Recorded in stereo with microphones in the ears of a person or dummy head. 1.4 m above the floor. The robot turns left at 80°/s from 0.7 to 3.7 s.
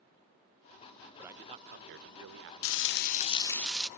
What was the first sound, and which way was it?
A man speaking, 5° right.